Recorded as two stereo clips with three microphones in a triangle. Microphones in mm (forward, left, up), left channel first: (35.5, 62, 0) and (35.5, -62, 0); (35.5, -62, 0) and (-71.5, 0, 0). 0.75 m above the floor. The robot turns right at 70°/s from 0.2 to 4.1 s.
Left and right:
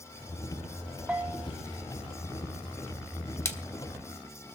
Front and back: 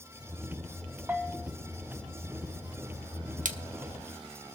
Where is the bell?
155° right, 0.8 m; by 1.5 s 125° right, 0.8 m.